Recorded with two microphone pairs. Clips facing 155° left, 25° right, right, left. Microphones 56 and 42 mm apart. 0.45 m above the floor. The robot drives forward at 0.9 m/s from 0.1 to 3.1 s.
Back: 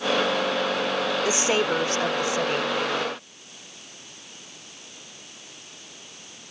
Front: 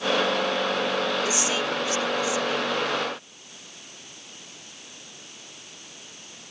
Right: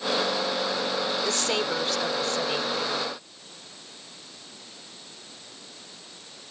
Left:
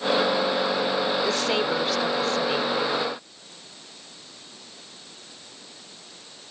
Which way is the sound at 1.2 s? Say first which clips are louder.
Back 3 dB, left 3 dB; 165° left.